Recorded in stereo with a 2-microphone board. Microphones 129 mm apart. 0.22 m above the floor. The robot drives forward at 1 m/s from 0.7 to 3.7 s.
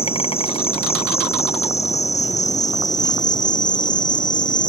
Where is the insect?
45° left (ahead or behind); by 4.7 s 75° left (ahead or behind).